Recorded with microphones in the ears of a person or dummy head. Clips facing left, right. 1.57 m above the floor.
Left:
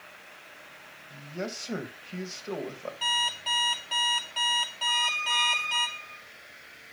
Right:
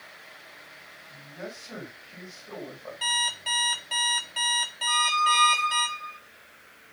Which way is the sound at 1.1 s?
55° left (ahead or behind).